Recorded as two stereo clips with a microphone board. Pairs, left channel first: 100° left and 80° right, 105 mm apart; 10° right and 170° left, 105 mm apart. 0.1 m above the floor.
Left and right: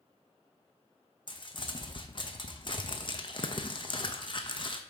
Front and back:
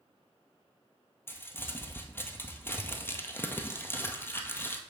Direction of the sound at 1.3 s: 60° left.